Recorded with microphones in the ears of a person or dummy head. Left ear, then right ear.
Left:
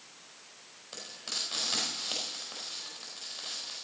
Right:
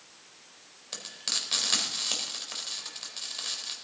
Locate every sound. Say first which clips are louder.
0.9 s frying: right 5 dB; 25° right (ahead or behind), 4 m